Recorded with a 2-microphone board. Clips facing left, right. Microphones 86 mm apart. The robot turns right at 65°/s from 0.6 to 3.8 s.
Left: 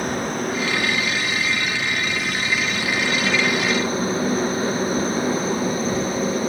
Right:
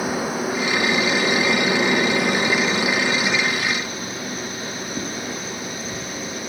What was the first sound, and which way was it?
A helicopter, 5° right (ahead or behind).